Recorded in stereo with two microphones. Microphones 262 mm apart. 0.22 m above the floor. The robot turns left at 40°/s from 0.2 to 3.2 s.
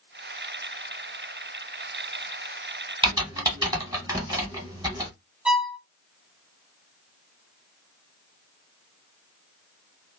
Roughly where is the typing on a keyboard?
Centre.